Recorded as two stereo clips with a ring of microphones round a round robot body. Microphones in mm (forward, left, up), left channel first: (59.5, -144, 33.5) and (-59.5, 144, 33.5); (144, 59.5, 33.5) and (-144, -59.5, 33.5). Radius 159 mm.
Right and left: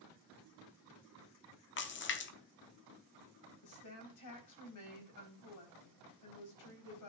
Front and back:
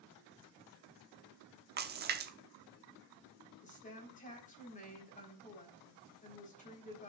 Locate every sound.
1.8 s a splash: 110° right, 1.0 m
3.6 s a woman speaking: 45° right, 3.5 m